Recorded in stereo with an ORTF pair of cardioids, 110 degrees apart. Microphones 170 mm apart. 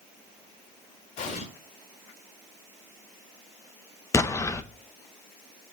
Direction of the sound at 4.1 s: 20° left.